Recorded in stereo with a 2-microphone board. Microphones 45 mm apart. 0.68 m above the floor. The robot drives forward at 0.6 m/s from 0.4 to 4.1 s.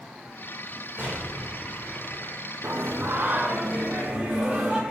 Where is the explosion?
40° right (ahead or behind), 2.5 m; by 2.4 s 30° right (ahead or behind), 3.5 m.